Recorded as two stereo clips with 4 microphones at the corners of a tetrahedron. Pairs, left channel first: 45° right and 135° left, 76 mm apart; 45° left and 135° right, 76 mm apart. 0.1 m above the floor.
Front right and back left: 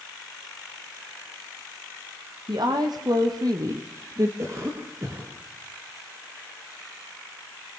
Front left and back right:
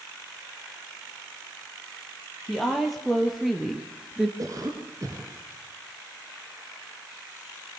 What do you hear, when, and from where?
2.5 s a woman speaking: 135° left, 4.5 m; by 4.3 s 140° left, 2 m
4.4 s a cough: 175° right, 5 m